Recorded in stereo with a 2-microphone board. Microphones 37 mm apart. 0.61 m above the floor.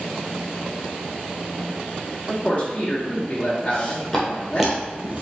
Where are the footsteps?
20° left (ahead or behind), 1.8 m; by 5.2 s 45° right (ahead or behind), 1.1 m.